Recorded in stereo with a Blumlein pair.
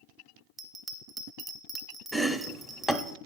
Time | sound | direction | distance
0.6 | a bell | 5° right | 0.7 m
2.1 | chopping | 5° left | 0.5 m